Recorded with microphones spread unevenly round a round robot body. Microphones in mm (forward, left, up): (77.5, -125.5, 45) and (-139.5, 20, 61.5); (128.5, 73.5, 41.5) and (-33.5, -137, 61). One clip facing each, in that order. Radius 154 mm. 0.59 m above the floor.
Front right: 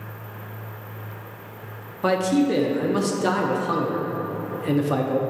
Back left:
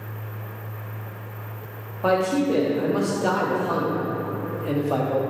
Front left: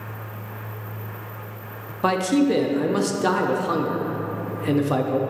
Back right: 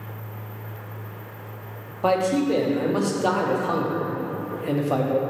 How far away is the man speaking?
About 0.7 m.